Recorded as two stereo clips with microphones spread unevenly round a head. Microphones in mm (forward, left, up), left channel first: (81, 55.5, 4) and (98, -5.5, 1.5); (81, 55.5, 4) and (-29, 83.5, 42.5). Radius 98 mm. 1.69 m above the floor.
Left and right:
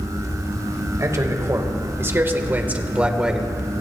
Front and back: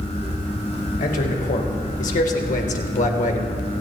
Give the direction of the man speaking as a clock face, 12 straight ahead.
1 o'clock.